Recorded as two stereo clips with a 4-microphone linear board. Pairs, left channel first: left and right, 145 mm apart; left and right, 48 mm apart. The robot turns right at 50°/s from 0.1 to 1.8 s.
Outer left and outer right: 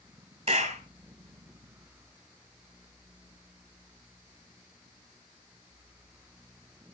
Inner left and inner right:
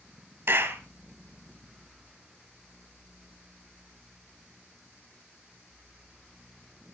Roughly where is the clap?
Right.